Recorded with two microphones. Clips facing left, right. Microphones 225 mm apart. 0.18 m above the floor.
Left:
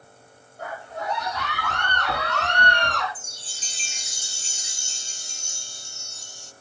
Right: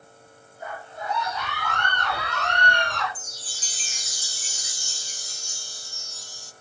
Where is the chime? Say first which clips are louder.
Right 1 dB; 25° left (ahead or behind), 0.6 m.